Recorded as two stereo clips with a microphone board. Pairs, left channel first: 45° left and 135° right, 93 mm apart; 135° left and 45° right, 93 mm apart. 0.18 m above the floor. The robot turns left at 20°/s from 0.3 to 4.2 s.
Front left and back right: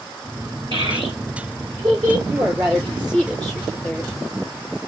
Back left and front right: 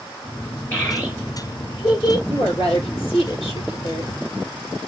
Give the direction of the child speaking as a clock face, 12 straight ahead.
5 o'clock.